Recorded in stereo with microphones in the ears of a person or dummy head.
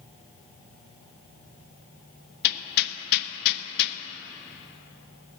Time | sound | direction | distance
2.4 | hammering | 60° left (ahead or behind) | 0.9 m